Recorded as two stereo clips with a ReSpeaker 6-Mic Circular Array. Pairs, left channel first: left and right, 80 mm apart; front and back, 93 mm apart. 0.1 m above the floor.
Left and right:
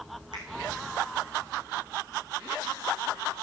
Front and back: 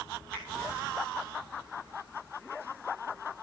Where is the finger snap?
110° right, 4.5 m.